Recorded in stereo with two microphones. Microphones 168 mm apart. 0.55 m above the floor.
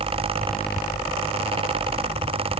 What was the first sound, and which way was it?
Only background noise.